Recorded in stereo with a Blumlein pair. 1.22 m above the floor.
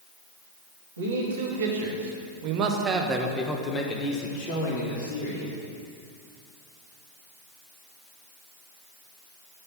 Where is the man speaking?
70° right, 1.7 m; by 5.5 s 60° left, 1.7 m.